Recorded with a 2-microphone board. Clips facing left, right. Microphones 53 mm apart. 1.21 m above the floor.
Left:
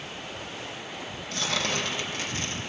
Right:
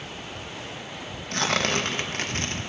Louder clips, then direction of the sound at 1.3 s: Right 5 dB; 55° right (ahead or behind).